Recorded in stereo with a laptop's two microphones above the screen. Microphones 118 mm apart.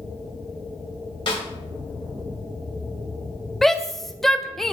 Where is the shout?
5° left (ahead or behind), 0.5 m.